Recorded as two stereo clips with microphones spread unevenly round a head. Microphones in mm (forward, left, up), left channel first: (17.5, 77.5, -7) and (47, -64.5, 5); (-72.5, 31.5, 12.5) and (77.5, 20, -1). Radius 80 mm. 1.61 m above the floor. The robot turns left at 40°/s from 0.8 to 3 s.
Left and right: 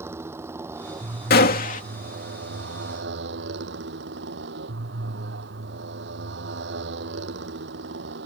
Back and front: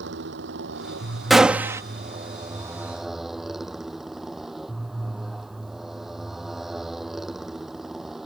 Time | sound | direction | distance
0.0 | a motorcycle | 5° right | ?
1.3 | a gunshot | 90° left | ?